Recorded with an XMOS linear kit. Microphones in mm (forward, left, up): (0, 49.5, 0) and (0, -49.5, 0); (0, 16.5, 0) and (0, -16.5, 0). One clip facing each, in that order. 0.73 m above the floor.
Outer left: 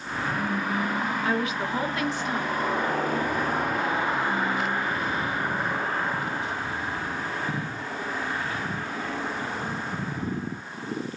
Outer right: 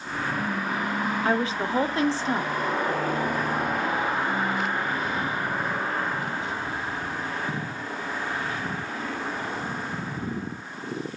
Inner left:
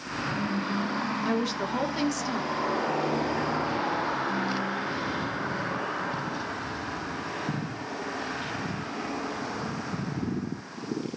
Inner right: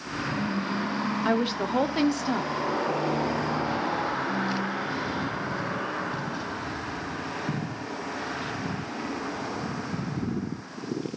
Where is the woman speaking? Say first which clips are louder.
Outer right 2 dB, inner right 4 dB; 30° right (ahead or behind), 0.9 m.